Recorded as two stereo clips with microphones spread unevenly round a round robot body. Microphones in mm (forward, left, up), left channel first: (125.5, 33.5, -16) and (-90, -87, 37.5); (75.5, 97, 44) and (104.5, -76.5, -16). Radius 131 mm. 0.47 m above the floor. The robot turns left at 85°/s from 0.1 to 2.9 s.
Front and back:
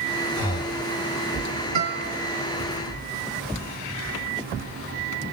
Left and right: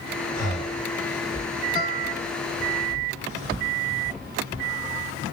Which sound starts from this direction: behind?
A guitar, at 1.8 s.